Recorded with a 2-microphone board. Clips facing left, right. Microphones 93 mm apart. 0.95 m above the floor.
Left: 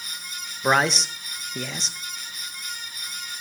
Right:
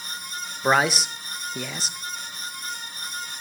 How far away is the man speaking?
About 0.8 m.